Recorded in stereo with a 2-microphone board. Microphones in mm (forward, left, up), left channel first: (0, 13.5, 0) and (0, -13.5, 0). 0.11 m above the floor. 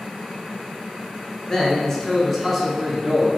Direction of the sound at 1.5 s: 25° left (ahead or behind).